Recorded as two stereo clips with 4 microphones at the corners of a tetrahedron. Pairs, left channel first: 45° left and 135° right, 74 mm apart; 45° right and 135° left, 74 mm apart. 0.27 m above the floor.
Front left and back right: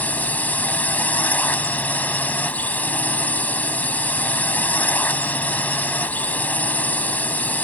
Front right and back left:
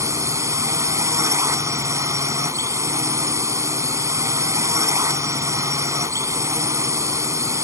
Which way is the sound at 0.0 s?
105° left.